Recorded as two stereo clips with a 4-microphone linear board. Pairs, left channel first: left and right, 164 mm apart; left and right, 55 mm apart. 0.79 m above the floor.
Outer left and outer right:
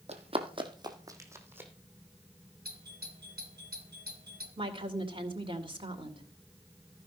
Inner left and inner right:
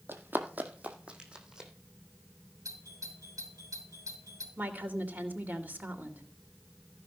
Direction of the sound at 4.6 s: 30° right (ahead or behind).